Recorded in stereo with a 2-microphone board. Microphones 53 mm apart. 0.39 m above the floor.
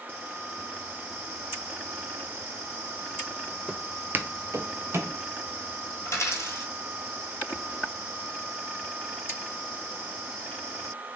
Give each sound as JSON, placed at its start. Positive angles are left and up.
{"t": 3.7, "sound": "footsteps", "side_deg": -10, "distance_m": 0.8}
{"t": 6.0, "sound": "a dropped coin", "side_deg": 65, "distance_m": 1.5}